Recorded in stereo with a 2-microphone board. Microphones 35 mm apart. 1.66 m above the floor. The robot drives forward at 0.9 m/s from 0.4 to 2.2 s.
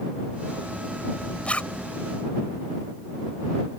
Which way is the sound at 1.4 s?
35° left (ahead or behind).